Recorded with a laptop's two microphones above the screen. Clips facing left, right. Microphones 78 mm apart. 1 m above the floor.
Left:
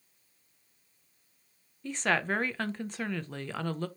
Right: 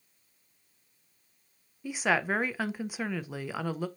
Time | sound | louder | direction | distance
1.8 | a woman speaking | right 1 dB | 10° right (ahead or behind) | 0.7 m